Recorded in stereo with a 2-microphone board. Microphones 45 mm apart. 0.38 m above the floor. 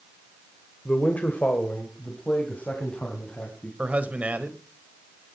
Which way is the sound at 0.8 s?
30° left (ahead or behind).